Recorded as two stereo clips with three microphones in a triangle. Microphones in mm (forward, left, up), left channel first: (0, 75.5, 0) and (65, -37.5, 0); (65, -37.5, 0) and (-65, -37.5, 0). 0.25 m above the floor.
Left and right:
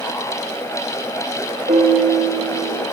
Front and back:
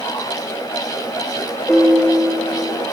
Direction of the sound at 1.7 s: 85° right.